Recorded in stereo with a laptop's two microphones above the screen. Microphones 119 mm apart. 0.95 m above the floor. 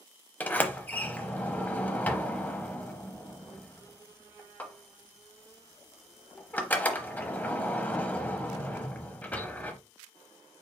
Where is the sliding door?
15° left (ahead or behind), 0.8 m.